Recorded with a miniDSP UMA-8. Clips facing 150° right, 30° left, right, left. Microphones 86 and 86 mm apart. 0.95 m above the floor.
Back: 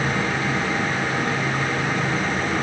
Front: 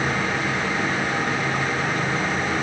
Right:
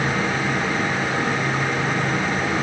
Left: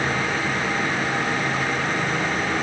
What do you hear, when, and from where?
Only background noise.